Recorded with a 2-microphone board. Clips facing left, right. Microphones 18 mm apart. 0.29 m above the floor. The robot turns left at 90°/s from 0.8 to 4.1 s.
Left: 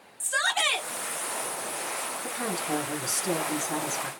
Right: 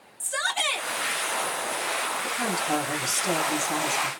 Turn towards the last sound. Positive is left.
turn(degrees=-175)